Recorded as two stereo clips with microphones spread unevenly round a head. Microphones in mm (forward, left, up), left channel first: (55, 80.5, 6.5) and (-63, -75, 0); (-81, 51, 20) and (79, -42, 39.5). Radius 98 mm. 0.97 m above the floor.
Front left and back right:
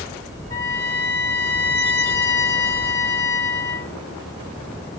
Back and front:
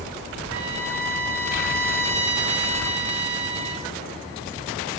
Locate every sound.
0.5 s a trumpet: 20° right, 1.3 m